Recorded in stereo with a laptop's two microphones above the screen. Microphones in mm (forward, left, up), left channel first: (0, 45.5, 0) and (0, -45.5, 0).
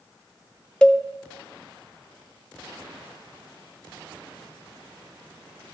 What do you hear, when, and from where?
0.8 s a cowbell: 10° left (ahead or behind), 0.5 m